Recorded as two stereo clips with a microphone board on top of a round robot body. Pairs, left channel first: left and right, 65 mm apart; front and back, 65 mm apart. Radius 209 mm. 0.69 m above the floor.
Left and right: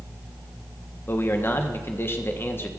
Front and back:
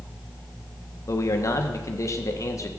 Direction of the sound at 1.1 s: 35° left.